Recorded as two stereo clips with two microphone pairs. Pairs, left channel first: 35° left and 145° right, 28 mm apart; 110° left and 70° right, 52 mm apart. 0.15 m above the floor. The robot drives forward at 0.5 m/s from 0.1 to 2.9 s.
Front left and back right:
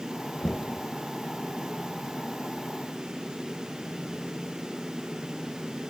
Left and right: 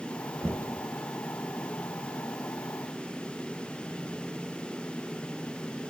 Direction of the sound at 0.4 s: 35° right.